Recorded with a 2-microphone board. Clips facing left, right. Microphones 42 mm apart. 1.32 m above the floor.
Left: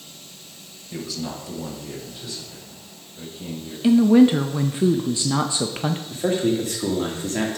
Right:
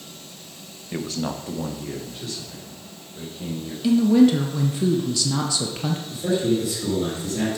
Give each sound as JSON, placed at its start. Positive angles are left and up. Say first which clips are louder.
{"t": 0.9, "sound": "a man speaking", "louder": "right 3 dB", "side_deg": -35, "distance_m": 0.8}
{"t": 3.8, "sound": "a woman speaking", "louder": "left 2 dB", "side_deg": 25, "distance_m": 0.5}
{"t": 6.1, "sound": "a man speaking", "louder": "even", "side_deg": 45, "distance_m": 1.8}